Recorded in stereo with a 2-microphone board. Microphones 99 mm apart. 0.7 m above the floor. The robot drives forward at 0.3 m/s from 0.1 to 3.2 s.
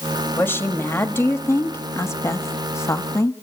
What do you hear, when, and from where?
0.4 s a woman speaking: 25° left (ahead or behind), 1.3 m; by 3.3 s 30° left (ahead or behind), 1.1 m